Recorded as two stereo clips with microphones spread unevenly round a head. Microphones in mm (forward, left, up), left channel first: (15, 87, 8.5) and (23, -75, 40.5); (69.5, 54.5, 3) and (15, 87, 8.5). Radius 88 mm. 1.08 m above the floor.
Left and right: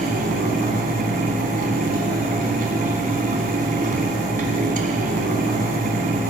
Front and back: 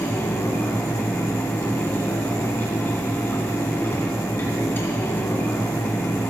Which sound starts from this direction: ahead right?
A fan, at 0.0 s.